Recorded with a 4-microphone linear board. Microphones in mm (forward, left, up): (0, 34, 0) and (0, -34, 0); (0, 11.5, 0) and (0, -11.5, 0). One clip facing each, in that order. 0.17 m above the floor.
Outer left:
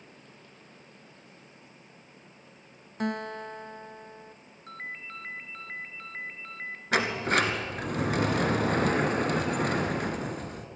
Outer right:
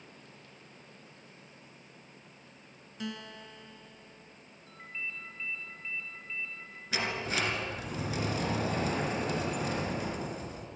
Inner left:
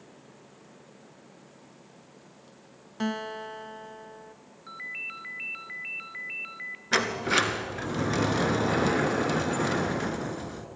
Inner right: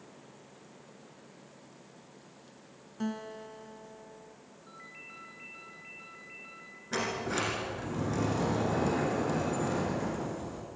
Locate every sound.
3.0 s a guitar: 50° left (ahead or behind), 0.5 m
4.7 s a ringtone: 60° left (ahead or behind), 1.4 m
6.9 s a sliding door: 60° left (ahead or behind), 1.7 m